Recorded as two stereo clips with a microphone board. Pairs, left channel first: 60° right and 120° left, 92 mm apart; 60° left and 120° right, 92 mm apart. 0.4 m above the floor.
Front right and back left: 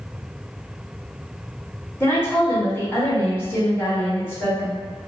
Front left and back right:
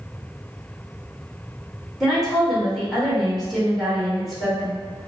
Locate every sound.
2.0 s a woman speaking: 30° right, 1.3 m